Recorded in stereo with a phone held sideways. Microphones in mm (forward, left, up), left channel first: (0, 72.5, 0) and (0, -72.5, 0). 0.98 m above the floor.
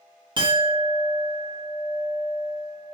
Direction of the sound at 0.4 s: 35° right (ahead or behind).